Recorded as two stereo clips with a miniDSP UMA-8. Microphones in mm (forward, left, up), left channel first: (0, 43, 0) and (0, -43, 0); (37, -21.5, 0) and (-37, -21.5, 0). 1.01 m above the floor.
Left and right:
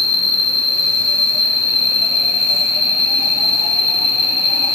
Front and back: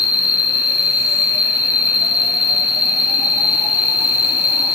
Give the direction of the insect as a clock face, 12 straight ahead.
11 o'clock.